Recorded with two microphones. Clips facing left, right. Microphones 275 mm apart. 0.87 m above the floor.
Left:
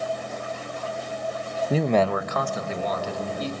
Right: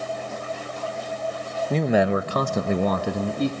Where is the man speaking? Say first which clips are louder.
Right 1 dB; 10° left (ahead or behind), 0.6 m; by 3.5 s 60° right (ahead or behind), 1.3 m.